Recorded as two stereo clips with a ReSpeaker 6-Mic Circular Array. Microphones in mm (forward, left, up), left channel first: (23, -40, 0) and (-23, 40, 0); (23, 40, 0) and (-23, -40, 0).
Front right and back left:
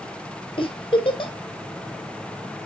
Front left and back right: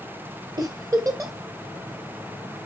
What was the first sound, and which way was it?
A giggle, 65° right.